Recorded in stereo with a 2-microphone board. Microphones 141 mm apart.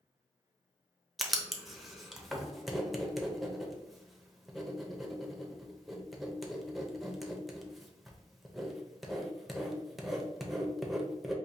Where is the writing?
Centre (ahead or behind), 0.6 m.